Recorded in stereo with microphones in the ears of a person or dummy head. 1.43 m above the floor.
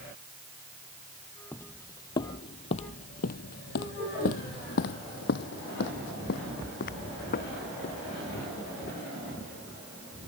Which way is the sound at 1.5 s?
5° left (ahead or behind).